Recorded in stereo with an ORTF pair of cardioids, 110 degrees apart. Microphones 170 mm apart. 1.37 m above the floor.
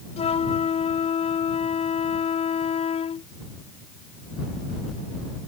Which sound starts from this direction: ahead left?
A flute, at 0.2 s.